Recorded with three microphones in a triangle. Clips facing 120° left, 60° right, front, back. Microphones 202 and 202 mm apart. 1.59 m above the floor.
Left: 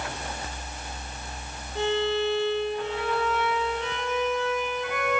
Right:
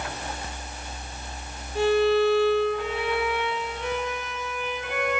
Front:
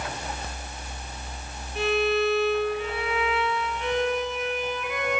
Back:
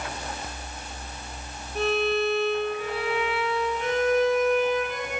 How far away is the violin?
About 3.5 m.